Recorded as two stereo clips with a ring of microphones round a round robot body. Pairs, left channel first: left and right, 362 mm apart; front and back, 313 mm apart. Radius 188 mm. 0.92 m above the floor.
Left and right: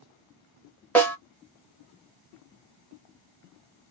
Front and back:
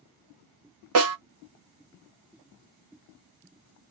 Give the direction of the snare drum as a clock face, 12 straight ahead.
6 o'clock.